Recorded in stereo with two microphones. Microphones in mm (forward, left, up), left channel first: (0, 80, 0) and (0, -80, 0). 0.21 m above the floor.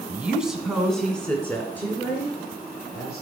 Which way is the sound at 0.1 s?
10° right (ahead or behind).